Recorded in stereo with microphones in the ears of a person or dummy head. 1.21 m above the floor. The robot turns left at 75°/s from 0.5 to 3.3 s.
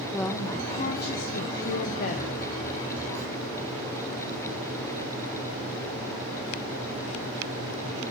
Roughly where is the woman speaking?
Behind.